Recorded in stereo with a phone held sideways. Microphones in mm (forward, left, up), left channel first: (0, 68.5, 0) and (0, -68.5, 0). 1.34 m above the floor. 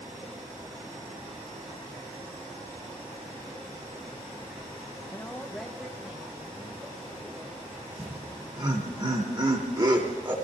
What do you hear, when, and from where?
5.1 s a woman speaking: 35° left (ahead or behind), 0.5 m; by 9.0 s 25° right (ahead or behind), 4 m
8.0 s laughter: 35° right (ahead or behind), 3 m